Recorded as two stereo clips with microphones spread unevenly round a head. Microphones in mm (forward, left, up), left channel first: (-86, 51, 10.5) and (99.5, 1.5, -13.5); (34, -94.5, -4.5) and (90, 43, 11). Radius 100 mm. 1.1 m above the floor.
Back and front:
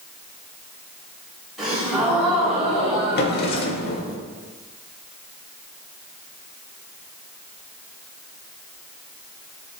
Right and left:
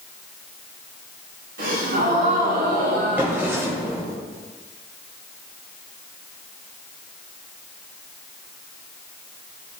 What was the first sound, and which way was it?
A gasp, 75° left.